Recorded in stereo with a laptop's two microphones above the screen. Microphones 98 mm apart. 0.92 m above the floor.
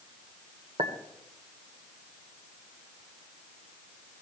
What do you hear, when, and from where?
0.8 s a clink: 75° right (ahead or behind), 1.9 m